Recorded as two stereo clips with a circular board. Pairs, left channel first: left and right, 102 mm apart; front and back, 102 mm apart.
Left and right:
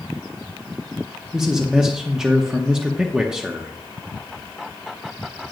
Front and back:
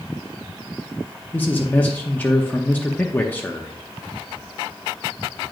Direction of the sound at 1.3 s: 20° right.